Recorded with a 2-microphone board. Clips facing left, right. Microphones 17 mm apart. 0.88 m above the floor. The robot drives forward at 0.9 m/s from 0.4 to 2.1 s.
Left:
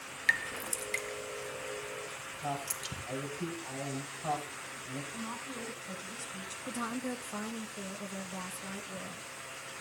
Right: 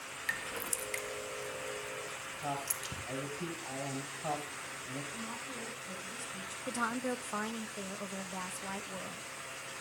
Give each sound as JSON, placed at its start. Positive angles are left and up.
{"t": 0.3, "sound": "dripping", "side_deg": 30, "distance_m": 0.7}
{"t": 2.4, "sound": "a man speaking", "side_deg": -15, "distance_m": 5.5}
{"t": 5.1, "sound": "a woman speaking", "side_deg": 15, "distance_m": 4.5}
{"t": 6.7, "sound": "a woman speaking", "side_deg": -35, "distance_m": 1.4}